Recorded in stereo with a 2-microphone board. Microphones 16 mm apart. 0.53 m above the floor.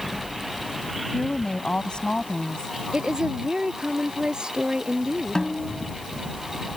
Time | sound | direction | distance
1.1 | a woman speaking | 75° left (ahead or behind) | ?
2.9 | a woman speaking | 65° right (ahead or behind) | ?
5.3 | a snare drum | 45° left (ahead or behind) | ?